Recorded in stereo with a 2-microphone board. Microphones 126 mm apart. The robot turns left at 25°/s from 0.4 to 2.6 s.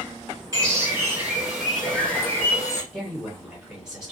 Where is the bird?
150° right, 1.7 m; by 2.8 s 155° left, 1.7 m.